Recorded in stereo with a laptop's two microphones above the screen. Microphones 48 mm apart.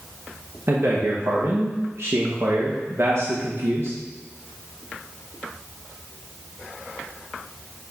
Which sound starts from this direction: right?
A man speaking, at 0.7 s.